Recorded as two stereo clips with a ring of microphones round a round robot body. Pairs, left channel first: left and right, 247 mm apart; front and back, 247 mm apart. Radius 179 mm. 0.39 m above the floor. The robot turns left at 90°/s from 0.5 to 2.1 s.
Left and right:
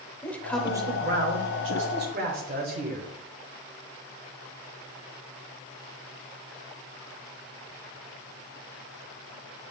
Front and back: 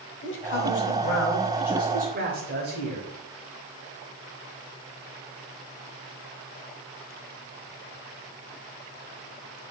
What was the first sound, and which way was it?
A man speaking, 5° left.